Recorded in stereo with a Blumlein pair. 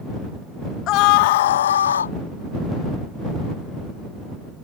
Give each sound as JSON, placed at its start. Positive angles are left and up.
{"t": 0.9, "sound": "a scream", "azimuth_deg": 35}